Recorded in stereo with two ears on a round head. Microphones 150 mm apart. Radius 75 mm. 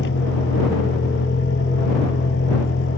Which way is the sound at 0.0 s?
85° left.